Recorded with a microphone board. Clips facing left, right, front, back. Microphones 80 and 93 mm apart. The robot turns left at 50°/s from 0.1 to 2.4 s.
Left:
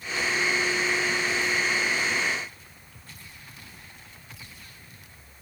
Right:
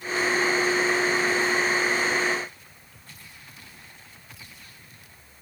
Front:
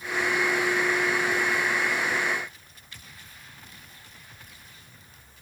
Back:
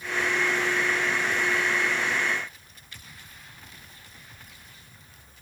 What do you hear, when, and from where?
Only background noise.